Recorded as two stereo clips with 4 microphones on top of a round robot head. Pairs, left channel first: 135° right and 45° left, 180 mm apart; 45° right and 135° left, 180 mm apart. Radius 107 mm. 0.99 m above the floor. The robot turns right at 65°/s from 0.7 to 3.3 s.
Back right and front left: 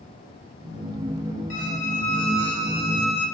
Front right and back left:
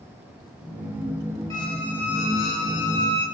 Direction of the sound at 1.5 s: 115° right.